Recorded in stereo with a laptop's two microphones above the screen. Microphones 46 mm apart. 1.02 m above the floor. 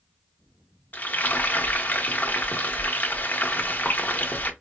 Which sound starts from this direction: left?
Frying, at 0.9 s.